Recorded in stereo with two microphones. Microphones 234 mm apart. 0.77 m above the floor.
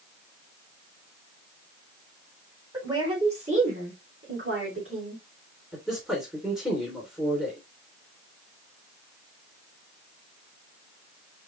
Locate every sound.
2.7 s a woman speaking: 15° right (ahead or behind), 2.5 m; by 5.2 s 70° right (ahead or behind), 2.5 m
5.7 s a man speaking: 10° right (ahead or behind), 2.5 m